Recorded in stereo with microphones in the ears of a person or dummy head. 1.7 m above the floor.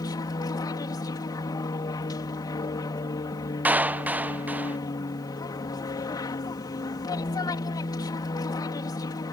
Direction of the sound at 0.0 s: 20° left (ahead or behind).